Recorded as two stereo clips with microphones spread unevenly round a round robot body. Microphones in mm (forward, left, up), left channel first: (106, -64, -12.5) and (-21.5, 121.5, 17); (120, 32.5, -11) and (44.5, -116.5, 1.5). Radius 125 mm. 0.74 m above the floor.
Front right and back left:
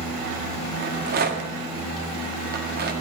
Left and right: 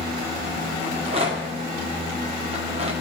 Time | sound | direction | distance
0.8 | a rattle | straight behind | 1.7 m